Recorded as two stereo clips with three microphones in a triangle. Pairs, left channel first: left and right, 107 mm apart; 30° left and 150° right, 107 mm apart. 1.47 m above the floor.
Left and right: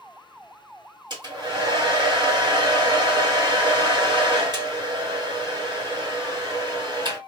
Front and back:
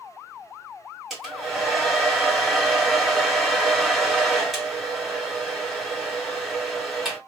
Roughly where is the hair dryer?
Ahead right.